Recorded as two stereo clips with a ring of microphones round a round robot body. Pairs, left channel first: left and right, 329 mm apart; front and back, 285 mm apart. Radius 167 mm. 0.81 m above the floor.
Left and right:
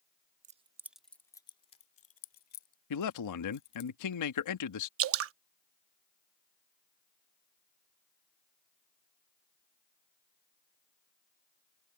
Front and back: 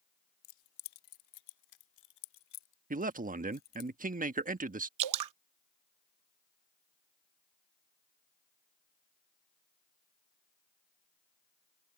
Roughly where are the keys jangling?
Ahead.